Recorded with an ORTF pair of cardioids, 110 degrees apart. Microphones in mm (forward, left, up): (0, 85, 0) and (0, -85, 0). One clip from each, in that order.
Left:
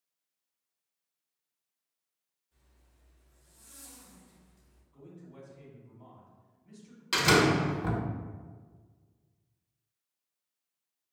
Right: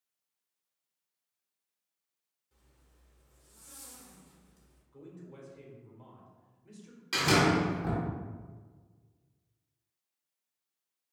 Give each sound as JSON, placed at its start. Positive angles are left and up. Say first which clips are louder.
{"t": 2.5, "sound": "a zipper", "louder": "right 2 dB", "azimuth_deg": -70, "distance_m": 1.6}
{"t": 4.9, "sound": "a man speaking", "louder": "right 1 dB", "azimuth_deg": -70, "distance_m": 1.5}
{"t": 7.1, "sound": "a door slam", "louder": "left 2 dB", "azimuth_deg": 30, "distance_m": 1.0}